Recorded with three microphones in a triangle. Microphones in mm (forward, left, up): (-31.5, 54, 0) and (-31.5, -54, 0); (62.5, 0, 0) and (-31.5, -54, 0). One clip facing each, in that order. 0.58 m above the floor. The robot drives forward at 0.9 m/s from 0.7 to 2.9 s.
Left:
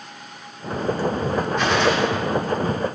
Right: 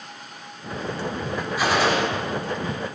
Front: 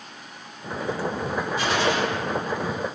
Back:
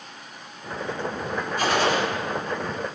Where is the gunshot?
170° right, 1.9 m; by 2.0 s 175° right, 2 m.